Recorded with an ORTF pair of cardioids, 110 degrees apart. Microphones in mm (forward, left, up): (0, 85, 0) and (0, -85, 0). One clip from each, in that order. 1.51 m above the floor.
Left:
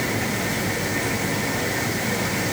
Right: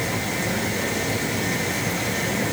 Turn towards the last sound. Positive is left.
No sound to turn to.